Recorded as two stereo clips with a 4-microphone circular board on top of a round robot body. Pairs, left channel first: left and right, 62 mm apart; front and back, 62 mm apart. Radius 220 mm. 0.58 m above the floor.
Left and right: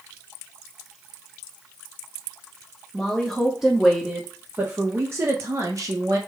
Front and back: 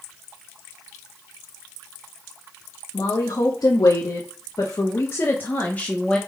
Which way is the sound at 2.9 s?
5° left.